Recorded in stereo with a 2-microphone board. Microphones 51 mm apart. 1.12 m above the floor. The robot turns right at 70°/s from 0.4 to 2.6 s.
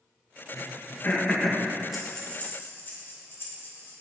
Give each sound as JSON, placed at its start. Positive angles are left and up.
{"t": 0.5, "sound": "throat clearing", "side_deg": 60, "distance_m": 1.3}
{"t": 1.9, "sound": "breathing", "side_deg": 0, "distance_m": 2.0}